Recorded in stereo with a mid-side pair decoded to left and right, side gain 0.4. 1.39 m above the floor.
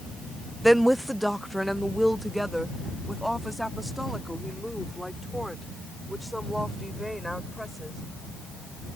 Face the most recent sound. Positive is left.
turn(degrees=0)